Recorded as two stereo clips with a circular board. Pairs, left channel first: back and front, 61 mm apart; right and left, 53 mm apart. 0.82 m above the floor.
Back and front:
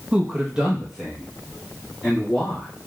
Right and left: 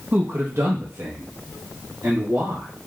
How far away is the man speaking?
About 0.5 m.